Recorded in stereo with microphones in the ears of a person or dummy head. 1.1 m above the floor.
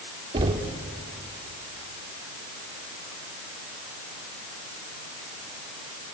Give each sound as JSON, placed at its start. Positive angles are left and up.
{"t": 0.3, "sound": "knocking", "side_deg": -25, "distance_m": 1.5}